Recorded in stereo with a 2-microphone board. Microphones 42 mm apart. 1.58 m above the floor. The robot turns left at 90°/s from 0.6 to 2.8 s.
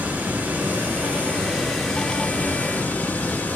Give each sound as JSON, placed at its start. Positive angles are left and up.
{"t": 0.0, "sound": "running water", "azimuth_deg": -75, "distance_m": 2.0}